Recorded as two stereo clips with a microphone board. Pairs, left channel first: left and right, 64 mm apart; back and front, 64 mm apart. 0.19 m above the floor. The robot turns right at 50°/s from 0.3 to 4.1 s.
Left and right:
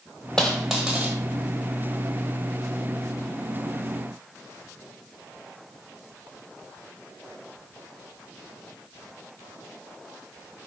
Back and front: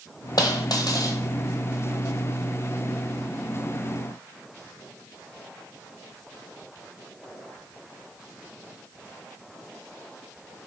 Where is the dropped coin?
165° left, 1.0 m; by 1.2 s 155° right, 1.0 m.